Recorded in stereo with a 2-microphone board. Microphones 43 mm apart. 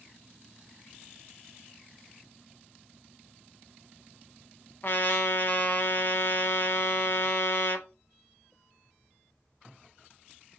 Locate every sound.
4.8 s a trumpet: 55° left (ahead or behind), 0.5 m